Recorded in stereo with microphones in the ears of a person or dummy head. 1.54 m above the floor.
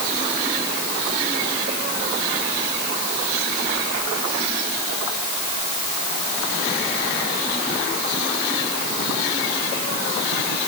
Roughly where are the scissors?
I don't hear scissors.